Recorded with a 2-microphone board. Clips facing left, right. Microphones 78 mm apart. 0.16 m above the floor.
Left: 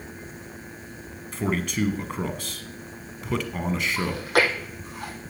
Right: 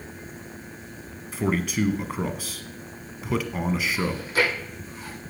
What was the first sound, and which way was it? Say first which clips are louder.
A man speaking: right 1 dB; 5° right (ahead or behind).